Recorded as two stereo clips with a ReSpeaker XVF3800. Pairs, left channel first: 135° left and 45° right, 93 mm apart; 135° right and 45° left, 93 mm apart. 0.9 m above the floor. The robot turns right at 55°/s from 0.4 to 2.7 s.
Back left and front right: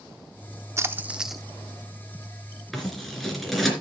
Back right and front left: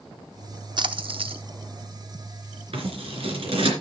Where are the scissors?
45° left, 3 m.